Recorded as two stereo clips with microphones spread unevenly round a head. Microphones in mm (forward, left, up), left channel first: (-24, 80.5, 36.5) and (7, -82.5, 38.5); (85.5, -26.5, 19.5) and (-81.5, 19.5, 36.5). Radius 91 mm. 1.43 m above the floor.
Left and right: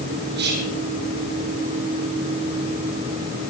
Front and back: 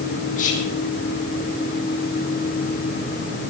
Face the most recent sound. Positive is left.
turn(degrees=-60)